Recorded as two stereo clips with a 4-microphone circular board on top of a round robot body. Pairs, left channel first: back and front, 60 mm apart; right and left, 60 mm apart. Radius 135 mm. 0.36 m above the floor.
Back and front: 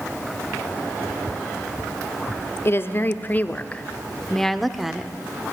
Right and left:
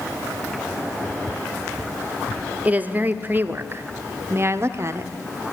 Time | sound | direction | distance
2.6 | a woman speaking | 150° left | 1.5 m